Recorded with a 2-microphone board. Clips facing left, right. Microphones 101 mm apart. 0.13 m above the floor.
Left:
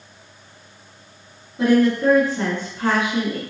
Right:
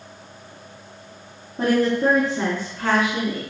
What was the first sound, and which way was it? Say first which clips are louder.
A woman speaking: left 3 dB; 45° right (ahead or behind).